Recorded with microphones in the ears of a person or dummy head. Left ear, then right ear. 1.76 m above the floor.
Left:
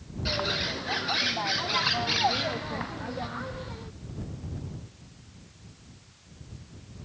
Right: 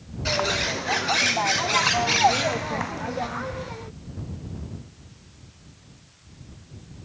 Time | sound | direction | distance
0.2 | a bird | 15° right (ahead or behind) | ?